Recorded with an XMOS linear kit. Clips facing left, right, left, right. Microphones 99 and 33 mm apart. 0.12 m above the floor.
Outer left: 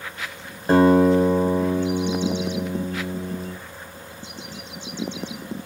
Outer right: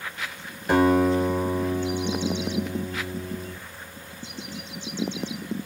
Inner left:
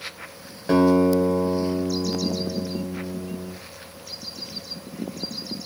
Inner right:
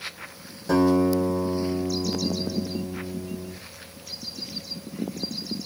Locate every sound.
0.7 s a guitar: 30° left (ahead or behind), 1.1 m